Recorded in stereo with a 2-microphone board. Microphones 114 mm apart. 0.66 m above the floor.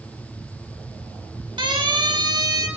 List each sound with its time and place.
1.6 s a siren: 45° right (ahead or behind), 4.5 m; by 2.7 s 35° right (ahead or behind), 4.5 m